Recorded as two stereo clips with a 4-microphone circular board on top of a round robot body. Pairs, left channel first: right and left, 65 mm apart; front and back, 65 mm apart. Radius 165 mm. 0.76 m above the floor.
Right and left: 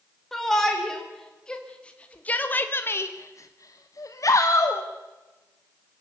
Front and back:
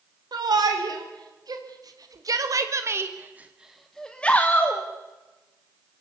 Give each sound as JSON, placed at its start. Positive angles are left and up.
{"t": 0.3, "sound": "a shout", "azimuth_deg": -175, "distance_m": 3.5}